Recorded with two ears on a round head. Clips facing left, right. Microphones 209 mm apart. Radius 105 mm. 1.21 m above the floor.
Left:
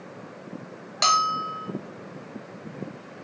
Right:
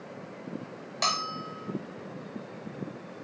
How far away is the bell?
About 0.6 m.